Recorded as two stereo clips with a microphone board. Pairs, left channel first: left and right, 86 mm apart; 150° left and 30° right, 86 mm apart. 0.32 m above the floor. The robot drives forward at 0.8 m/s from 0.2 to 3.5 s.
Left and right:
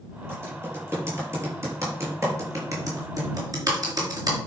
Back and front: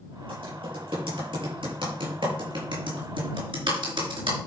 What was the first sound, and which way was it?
Typing on a keyboard, 25° right.